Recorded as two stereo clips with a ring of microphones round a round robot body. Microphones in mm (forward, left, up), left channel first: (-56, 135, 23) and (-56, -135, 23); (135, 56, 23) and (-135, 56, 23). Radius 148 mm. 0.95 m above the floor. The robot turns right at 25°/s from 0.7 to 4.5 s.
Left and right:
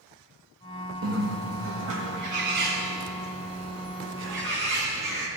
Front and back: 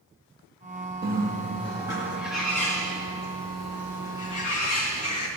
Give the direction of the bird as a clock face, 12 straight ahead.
4 o'clock.